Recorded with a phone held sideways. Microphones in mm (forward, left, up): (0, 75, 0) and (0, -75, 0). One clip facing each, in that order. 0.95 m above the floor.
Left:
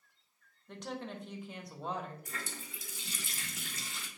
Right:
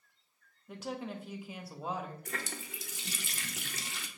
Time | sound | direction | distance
0.7 | a woman speaking | 5° right (ahead or behind) | 0.6 m
2.2 | a running tap | 65° right (ahead or behind) | 0.5 m